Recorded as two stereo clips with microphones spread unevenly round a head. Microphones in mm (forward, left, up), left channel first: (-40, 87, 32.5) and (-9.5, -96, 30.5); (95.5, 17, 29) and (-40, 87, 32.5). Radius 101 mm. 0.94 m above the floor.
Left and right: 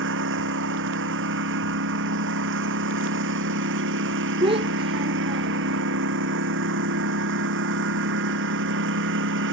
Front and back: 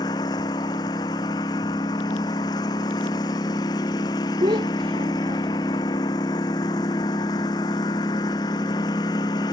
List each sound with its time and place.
0.0 s a lawn mower: 100° right
4.4 s a child speaking: 140° right